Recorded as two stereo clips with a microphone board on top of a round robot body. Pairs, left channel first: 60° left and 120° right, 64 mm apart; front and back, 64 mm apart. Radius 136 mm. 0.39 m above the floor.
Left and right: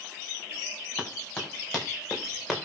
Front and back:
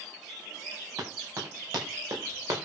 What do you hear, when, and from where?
1.0 s running footsteps: 135° left, 8.5 m; by 2.6 s 150° left, 6.5 m